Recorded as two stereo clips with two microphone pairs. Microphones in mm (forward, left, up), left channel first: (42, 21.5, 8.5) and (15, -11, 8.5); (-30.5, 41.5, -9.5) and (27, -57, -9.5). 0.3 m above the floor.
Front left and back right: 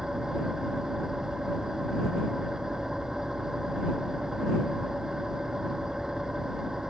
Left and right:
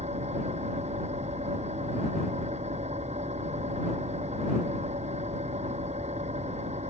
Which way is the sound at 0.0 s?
45° right.